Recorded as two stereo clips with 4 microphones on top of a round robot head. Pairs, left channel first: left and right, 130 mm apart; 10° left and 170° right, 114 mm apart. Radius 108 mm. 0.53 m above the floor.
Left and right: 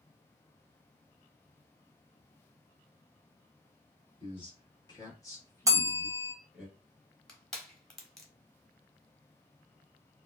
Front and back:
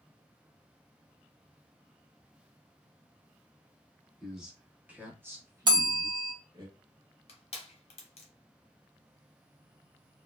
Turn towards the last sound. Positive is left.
turn(degrees=5)